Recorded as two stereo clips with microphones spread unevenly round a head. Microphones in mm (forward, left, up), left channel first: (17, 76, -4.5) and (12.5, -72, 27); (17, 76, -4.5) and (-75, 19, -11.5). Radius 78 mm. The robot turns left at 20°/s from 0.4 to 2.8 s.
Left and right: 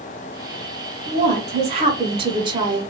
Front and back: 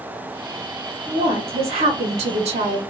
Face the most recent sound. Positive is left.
turn(degrees=-145)